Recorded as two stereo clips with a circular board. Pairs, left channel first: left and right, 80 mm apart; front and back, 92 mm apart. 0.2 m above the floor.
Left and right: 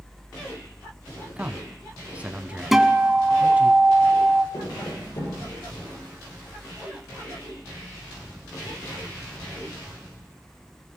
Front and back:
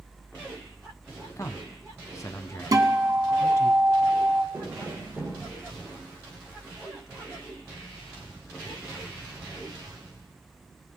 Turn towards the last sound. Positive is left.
turn(degrees=115)